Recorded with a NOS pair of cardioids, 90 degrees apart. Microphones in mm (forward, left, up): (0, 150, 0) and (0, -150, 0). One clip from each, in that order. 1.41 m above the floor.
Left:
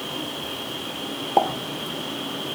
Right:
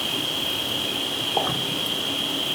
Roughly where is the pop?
Ahead left.